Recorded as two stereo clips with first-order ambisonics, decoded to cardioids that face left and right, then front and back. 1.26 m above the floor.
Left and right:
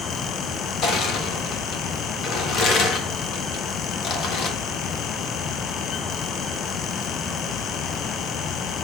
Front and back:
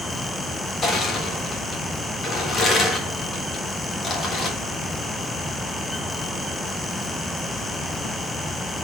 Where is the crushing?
55° left, 1.3 m.